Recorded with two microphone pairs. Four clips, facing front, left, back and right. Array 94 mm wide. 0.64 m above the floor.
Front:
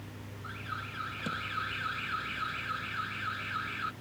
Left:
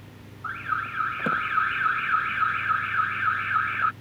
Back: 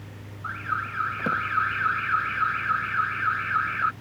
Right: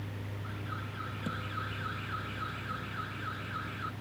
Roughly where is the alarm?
Behind left.